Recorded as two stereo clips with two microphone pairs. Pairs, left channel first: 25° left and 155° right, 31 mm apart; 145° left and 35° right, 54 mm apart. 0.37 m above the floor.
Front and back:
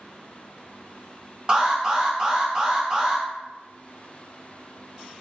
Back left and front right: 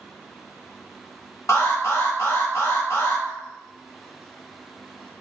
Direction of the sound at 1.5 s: 145° left.